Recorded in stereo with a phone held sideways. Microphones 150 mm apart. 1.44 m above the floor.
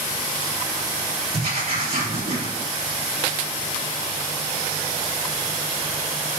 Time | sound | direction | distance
1.3 | writing | 80° right | 2.5 m